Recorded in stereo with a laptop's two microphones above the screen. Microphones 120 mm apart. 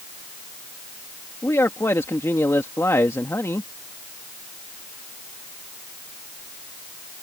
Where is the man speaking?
25° left (ahead or behind).